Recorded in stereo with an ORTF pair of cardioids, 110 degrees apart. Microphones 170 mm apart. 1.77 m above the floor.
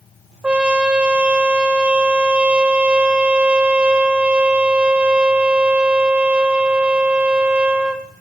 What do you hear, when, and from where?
0.4 s a trumpet: 5° right, 1.0 m